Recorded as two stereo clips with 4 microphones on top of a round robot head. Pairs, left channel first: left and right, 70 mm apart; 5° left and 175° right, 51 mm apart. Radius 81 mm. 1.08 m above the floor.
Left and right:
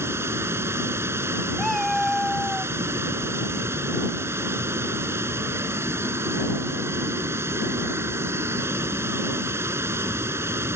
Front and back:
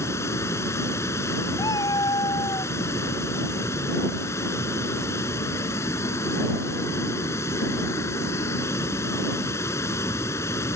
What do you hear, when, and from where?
0.0 s running water: 35° right
1.6 s a cat meowing: straight ahead